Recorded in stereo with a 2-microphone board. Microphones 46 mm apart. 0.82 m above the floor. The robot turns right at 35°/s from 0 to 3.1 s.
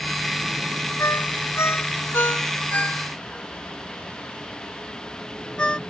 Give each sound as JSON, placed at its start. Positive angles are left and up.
{"t": 1.0, "sound": "a ringtone", "side_deg": 85}